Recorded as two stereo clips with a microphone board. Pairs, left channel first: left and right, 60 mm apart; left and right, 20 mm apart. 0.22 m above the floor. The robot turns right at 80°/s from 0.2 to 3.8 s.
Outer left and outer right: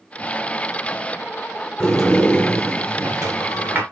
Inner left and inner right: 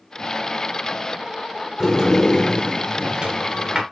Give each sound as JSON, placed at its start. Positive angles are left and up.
{"t": 1.8, "sound": "a sliding door", "azimuth_deg": 160, "distance_m": 3.0}